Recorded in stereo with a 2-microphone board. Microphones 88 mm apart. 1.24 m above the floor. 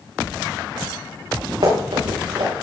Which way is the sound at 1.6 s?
75° right (ahead or behind).